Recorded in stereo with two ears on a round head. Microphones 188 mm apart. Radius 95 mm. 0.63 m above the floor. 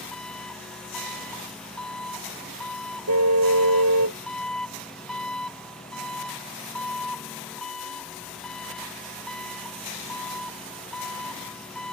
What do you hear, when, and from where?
0.0 s an engine running: 5° left (ahead or behind)
3.1 s a car horn: 85° right